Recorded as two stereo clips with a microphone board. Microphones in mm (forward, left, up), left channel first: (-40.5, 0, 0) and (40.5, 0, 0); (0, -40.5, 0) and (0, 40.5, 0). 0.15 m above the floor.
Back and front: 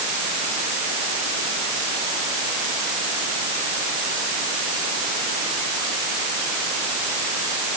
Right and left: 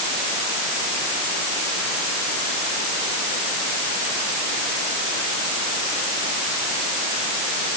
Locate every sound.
Only background noise.